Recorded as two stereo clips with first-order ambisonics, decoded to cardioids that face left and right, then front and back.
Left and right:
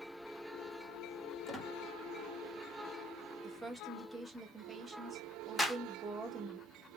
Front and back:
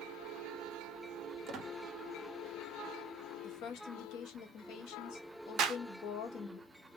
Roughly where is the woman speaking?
Ahead.